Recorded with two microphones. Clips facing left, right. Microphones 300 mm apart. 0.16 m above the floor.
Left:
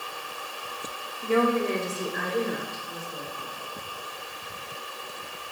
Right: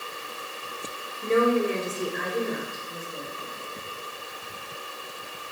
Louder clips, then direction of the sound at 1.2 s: Right 2 dB; 30° right (ahead or behind).